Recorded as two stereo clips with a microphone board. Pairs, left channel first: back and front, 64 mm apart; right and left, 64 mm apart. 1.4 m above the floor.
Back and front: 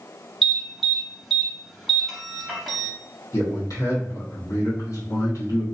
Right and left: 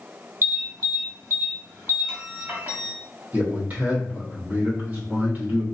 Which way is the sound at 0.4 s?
90° left.